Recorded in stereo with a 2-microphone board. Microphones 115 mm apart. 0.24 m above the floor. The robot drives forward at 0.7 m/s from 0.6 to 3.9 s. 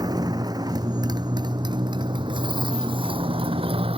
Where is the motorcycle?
35° right (ahead or behind); by 4.0 s 55° right (ahead or behind).